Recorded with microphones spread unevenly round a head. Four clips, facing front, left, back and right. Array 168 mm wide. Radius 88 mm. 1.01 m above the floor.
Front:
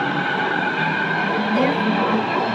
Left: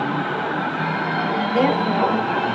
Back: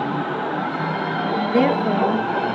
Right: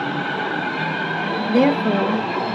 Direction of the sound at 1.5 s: 110° right.